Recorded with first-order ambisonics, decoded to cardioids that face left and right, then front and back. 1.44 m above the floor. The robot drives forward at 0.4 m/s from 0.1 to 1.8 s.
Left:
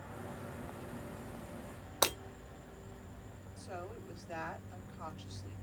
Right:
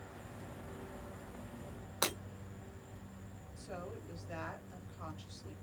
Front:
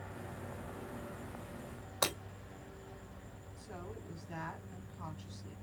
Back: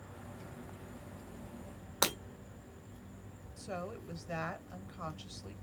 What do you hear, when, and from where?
2.0 s breaking glass: 155° left, 1.1 m
3.6 s a woman speaking: straight behind, 1.5 m